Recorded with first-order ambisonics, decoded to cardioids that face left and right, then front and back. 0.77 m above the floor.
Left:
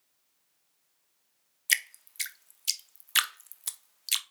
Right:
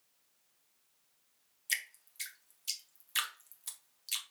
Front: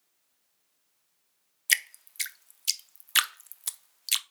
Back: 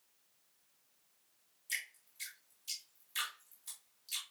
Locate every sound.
1.7 s dripping: 30° left, 0.5 m